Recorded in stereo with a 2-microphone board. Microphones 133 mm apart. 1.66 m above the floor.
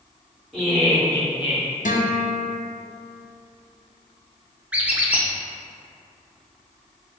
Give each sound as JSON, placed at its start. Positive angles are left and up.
{"t": 0.5, "sound": "laughter", "side_deg": 0, "distance_m": 1.8}
{"t": 1.9, "sound": "a guitar", "side_deg": 75, "distance_m": 0.7}
{"t": 4.7, "sound": "a squeak", "side_deg": -10, "distance_m": 0.5}